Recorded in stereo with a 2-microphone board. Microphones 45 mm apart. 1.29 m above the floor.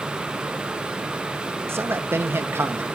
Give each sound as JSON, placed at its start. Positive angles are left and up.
{"t": 1.7, "sound": "a man speaking", "side_deg": -70, "distance_m": 1.4}